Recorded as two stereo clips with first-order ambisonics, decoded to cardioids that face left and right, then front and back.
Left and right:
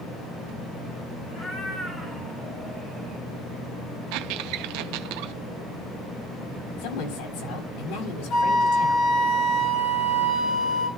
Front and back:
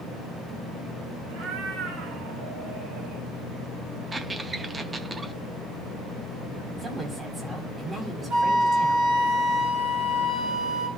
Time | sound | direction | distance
1.3 | a cat meowing | 150° left | 3.5 m
4.1 | a squeak | 100° right | 0.6 m
6.8 | a woman speaking | 105° left | 5 m
8.3 | a flute | 135° left | 4 m